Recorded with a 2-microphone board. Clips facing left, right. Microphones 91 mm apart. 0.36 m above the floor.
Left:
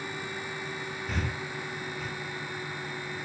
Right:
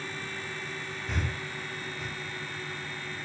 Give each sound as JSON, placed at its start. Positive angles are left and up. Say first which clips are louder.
{"t": 1.1, "sound": "breathing", "louder": "even", "side_deg": 0, "distance_m": 0.6}